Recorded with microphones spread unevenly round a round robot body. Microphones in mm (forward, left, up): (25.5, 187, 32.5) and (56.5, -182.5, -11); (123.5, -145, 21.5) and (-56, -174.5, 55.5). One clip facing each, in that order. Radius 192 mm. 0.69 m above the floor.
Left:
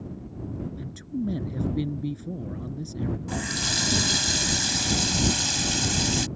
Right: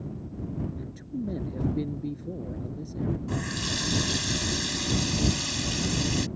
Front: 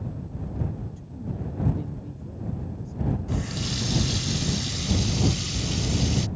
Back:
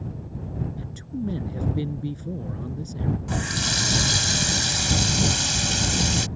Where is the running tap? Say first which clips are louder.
Even, back 1 dB; 165° left.